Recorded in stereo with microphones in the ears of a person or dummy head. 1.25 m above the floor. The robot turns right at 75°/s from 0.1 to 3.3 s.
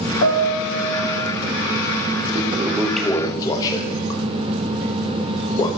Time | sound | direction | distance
0.2 | a piano | 75° left | 1.5 m
2.4 | a toilet flushing | 35° right (ahead or behind) | 0.7 m